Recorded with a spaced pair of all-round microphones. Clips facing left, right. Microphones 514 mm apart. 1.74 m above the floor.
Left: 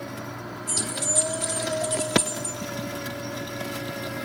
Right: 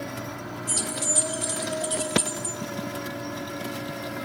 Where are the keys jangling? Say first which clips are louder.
Left 1 dB; 25° right (ahead or behind), 0.8 m.